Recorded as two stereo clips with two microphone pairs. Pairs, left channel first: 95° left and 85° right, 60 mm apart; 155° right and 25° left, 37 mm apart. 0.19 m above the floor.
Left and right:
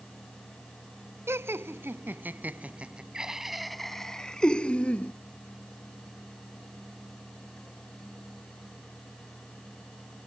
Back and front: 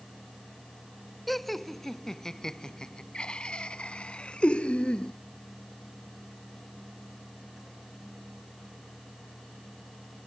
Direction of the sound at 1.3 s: 70° right.